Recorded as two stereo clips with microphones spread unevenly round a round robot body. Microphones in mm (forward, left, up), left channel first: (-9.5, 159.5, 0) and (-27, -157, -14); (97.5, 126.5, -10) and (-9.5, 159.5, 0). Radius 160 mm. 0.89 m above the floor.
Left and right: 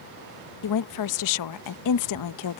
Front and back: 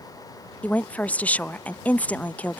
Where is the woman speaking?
60° left.